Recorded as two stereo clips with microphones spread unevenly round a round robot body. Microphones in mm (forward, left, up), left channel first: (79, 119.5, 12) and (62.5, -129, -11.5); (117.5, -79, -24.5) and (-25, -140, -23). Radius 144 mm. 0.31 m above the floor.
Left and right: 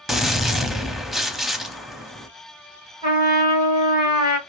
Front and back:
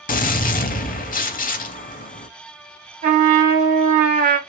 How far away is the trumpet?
About 1.5 m.